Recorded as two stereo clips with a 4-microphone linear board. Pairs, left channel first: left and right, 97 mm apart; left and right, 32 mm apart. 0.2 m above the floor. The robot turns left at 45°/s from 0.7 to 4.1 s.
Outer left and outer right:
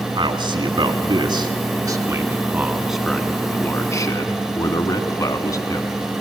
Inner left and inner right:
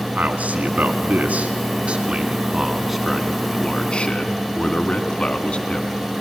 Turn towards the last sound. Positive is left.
turn(degrees=130)